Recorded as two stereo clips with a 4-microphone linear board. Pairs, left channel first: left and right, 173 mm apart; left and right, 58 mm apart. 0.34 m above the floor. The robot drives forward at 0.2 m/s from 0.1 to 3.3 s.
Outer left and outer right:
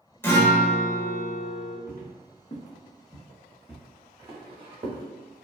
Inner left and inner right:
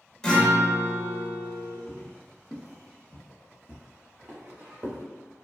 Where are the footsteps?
55° left (ahead or behind), 1.1 m; by 5.0 s 40° right (ahead or behind), 1.2 m.